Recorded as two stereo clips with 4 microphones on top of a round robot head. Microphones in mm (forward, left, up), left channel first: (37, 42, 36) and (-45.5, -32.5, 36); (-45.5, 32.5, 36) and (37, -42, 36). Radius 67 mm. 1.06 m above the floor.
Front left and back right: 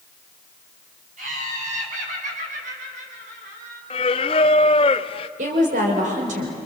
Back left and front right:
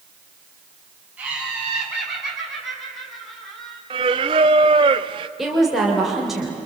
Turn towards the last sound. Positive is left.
turn(degrees=-130)